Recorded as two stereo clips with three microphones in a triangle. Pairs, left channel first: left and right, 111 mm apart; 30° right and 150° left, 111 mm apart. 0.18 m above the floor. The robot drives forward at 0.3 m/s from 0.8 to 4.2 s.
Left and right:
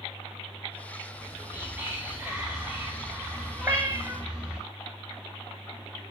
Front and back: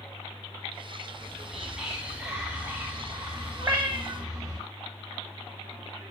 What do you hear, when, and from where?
1.1 s whispering: 110° right, 1.1 m; by 4.6 s 160° right, 1.5 m
3.6 s a cat meowing: 145° right, 0.8 m; by 4.2 s 150° right, 0.9 m